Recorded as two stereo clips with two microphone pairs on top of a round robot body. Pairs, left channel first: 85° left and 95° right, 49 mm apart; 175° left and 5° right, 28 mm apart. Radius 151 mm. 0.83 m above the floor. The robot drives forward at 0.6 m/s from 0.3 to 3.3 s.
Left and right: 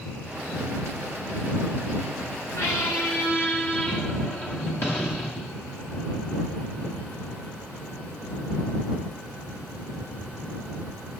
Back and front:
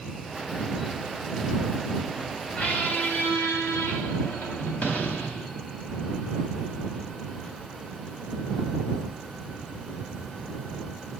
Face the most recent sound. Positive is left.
turn(degrees=145)